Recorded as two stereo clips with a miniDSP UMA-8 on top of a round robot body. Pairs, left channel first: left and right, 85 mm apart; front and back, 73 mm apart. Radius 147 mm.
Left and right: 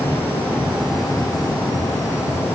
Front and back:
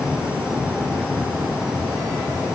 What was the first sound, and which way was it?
Only background noise.